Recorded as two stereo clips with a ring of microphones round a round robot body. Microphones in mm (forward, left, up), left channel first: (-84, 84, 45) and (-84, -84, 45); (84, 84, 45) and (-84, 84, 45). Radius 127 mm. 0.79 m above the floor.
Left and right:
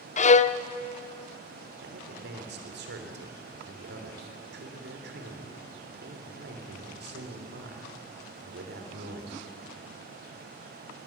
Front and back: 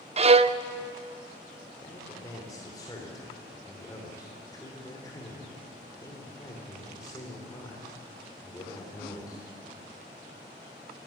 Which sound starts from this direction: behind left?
A violin, at 0.2 s.